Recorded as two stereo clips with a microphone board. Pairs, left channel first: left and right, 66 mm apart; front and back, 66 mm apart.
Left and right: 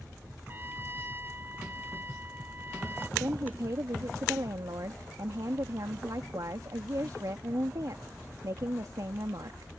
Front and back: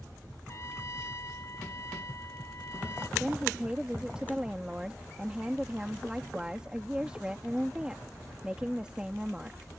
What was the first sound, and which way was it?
A trumpet, 35° right.